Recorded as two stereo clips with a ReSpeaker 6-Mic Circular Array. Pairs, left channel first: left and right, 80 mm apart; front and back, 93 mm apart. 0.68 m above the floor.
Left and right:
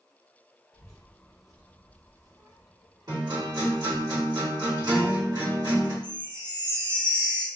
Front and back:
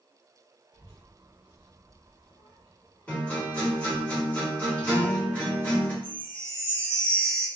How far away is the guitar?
About 1.5 m.